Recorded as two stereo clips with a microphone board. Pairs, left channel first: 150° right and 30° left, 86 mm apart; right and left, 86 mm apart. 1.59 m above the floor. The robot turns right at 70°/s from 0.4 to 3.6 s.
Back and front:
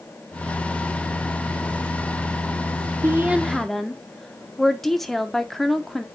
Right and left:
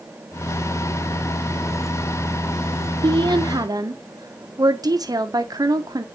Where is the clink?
I don't hear a clink.